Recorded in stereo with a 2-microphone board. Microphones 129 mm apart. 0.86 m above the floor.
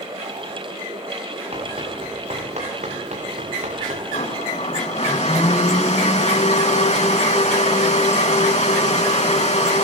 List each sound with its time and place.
1.5 s running footsteps: 50° right (ahead or behind), 9.5 m; by 4.0 s 65° right (ahead or behind), 10 m
4.1 s a blender: 60° left (ahead or behind), 5 m